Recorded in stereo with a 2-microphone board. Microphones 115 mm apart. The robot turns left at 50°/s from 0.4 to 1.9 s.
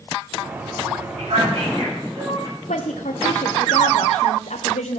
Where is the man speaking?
75° right (ahead or behind), 8 m; by 2.5 s 40° right (ahead or behind), 8 m.